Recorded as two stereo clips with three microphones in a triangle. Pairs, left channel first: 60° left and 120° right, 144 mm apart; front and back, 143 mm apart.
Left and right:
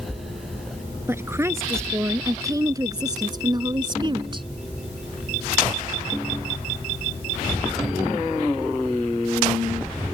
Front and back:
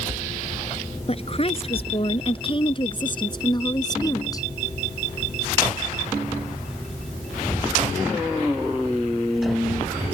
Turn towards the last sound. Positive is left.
turn(degrees=-65)